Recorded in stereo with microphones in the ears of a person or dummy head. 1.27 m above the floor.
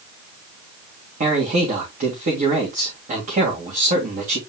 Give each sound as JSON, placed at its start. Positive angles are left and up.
{"t": 1.2, "sound": "a man speaking", "side_deg": -45, "distance_m": 2.5}